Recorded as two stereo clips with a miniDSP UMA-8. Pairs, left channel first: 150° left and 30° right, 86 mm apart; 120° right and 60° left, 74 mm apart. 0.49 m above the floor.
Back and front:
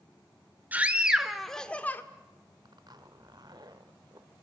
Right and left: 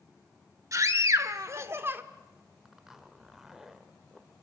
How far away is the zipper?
About 1.4 m.